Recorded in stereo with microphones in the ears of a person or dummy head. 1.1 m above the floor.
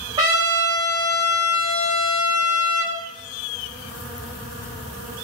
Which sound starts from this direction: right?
A trumpet, at 0.2 s.